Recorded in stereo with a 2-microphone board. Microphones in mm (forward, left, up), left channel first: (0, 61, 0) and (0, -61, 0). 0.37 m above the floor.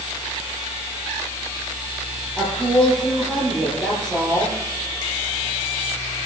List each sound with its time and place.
2.4 s a woman speaking: 5° left (ahead or behind), 9.5 m